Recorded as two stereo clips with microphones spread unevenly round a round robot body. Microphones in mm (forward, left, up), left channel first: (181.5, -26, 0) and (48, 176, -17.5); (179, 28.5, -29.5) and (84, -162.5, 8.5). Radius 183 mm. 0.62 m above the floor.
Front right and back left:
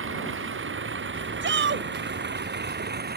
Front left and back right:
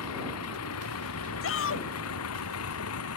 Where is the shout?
85° left.